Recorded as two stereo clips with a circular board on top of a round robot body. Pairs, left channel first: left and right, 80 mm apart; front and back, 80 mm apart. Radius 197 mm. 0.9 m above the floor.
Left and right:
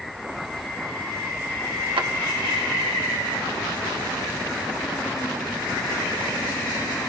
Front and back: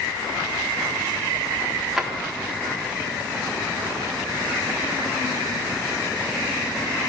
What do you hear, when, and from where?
2.0 s a drawer: 95° right, 1.3 m